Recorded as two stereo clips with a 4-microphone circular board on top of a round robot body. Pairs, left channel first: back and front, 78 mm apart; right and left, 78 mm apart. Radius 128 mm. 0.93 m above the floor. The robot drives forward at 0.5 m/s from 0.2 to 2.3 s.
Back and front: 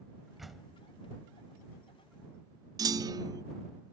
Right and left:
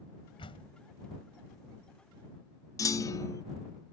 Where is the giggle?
No giggle in this recording.